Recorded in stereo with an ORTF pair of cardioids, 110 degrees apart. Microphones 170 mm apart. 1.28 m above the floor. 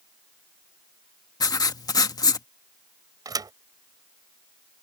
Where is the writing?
20° left.